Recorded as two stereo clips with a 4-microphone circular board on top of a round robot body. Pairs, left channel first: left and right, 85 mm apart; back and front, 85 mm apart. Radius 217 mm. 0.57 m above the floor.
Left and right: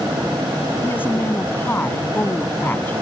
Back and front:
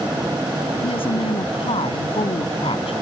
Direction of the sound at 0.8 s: 160° left.